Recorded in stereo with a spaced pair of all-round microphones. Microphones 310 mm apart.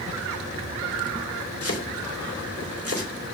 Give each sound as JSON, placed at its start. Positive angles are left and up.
{"t": 1.6, "sound": "chopping", "side_deg": 50, "distance_m": 3.0}